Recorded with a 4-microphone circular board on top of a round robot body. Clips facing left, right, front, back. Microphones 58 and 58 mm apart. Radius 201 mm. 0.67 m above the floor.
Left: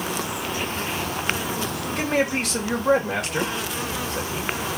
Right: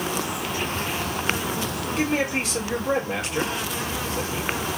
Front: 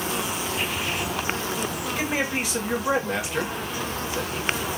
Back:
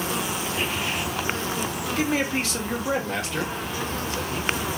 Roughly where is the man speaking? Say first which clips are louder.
Left 1 dB, back 2 dB; left.